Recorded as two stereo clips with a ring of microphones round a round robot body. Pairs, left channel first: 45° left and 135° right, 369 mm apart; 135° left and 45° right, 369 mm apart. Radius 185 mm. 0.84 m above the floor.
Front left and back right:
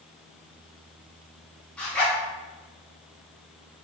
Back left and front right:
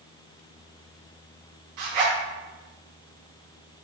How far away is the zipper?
About 1.4 m.